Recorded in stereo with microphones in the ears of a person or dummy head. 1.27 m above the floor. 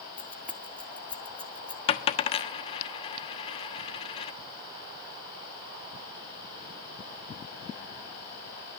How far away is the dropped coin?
About 1.1 m.